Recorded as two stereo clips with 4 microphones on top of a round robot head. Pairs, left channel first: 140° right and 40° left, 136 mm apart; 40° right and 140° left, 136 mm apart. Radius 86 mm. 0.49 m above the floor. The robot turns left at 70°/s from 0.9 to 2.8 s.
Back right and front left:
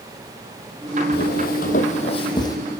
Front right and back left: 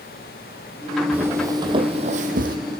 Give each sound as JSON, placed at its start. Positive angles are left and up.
{"t": 1.1, "sound": "footsteps", "azimuth_deg": -145, "distance_m": 1.2}